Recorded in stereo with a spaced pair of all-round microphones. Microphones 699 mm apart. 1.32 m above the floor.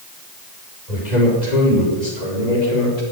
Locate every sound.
0.9 s a man speaking: 80° left, 5.5 m